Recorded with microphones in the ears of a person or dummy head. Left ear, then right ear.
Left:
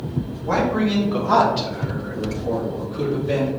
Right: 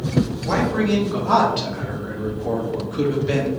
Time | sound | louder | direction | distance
0.4 | a man speaking | left 2 dB | 5° right (ahead or behind) | 2 m